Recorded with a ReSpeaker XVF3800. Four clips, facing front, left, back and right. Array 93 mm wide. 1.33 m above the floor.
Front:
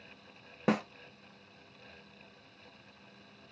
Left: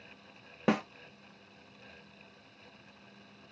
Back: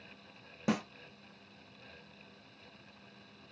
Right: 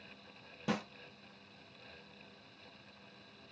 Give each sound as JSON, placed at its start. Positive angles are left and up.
{"t": 0.7, "sound": "a snare drum", "azimuth_deg": 55, "distance_m": 0.5}